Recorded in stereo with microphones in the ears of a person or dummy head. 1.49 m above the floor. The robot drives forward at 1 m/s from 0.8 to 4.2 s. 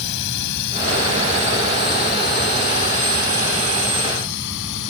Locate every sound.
0.0 s a drone: 65° left (ahead or behind); by 4.9 s 70° left (ahead or behind)